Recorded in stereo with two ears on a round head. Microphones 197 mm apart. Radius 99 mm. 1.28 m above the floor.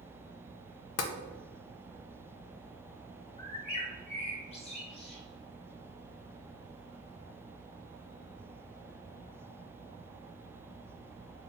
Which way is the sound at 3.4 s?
30° left (ahead or behind).